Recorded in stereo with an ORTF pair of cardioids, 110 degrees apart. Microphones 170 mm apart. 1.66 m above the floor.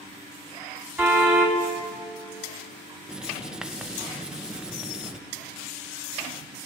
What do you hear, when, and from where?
1.0 s a car horn: 10° right, 5 m
3.1 s writing: 5° right, 1.2 m